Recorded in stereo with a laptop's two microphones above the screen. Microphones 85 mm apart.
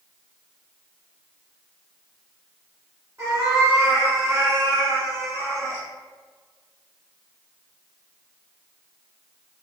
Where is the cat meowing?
35° right (ahead or behind), 1.3 m.